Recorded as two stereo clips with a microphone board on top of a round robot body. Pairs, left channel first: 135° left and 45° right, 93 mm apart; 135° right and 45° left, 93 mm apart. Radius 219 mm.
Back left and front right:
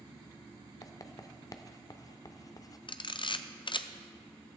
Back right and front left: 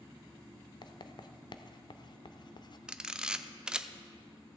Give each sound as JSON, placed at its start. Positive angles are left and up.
{"t": 0.8, "sound": "writing", "azimuth_deg": -175, "distance_m": 0.8}
{"t": 2.9, "sound": "a camera shutter", "azimuth_deg": 125, "distance_m": 0.8}